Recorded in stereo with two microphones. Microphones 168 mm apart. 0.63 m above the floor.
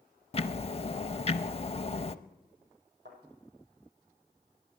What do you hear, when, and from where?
0.3 s ticking: 35° left (ahead or behind), 0.5 m
3.0 s a thud: 80° right, 8.5 m